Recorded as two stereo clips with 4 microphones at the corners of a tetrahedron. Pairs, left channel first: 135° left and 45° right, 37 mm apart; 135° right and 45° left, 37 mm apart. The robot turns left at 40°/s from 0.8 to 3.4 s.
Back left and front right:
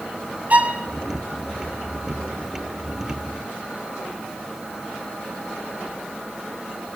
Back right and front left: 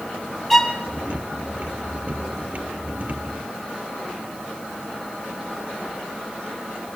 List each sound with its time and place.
0.5 s a violin: 60° right, 1.4 m